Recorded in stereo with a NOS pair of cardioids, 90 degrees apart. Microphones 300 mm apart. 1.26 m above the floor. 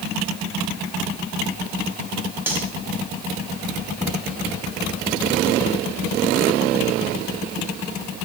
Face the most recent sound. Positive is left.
turn(degrees=-5)